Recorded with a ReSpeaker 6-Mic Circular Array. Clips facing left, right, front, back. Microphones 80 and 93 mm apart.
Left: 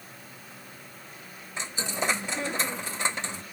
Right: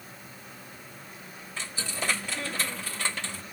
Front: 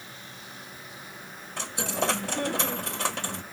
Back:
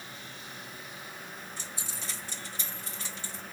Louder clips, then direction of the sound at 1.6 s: Left 4 dB, front 13 dB; 20° left.